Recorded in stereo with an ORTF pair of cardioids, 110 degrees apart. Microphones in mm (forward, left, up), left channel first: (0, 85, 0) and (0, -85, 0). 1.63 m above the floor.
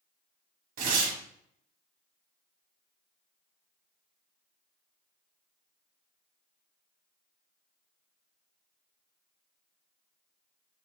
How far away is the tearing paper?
About 1.3 m.